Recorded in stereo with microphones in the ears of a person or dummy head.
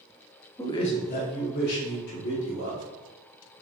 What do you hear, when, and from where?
0.6 s a man speaking: 15° left (ahead or behind), 0.6 m; by 2.8 s 60° left (ahead or behind), 2.5 m